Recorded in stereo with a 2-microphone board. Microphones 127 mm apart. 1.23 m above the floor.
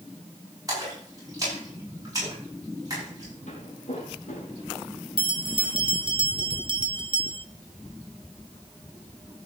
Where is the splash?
30° right (ahead or behind), 8 m.